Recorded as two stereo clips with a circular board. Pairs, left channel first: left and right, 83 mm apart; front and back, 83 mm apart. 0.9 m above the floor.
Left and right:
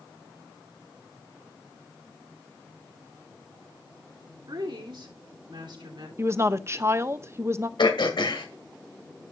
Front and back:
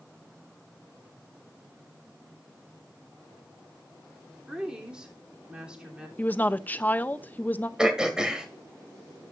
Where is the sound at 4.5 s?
100° right, 3 m.